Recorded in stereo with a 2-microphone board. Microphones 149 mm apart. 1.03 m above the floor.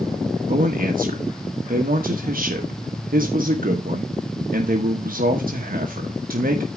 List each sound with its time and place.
0.5 s a man speaking: 70° right (ahead or behind), 1.2 m